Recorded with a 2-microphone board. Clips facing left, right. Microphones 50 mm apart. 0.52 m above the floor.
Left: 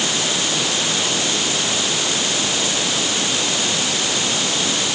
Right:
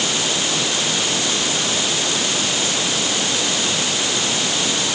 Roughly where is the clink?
I don't hear a clink.